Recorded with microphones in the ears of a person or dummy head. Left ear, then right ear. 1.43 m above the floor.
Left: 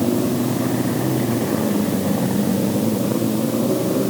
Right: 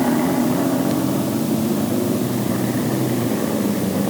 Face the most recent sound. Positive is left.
No sound to turn to.